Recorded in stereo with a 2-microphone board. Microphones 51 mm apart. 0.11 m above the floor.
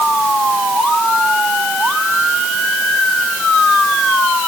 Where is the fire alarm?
No fire alarm in this recording.